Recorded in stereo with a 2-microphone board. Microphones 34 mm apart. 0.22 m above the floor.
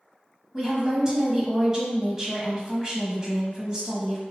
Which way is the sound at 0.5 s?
25° right (ahead or behind).